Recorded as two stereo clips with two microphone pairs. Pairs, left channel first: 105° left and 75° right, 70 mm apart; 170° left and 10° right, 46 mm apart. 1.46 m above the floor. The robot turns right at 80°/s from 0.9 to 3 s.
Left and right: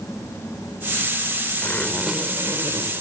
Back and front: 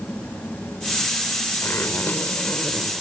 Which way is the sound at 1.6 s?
165° left.